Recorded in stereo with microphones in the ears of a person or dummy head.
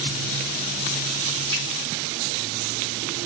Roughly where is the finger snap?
Left.